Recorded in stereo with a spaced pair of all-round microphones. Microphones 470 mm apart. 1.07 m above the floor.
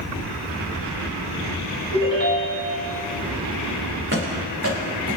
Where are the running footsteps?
25° right (ahead or behind), 4 m; by 5.2 s 45° right (ahead or behind), 4 m.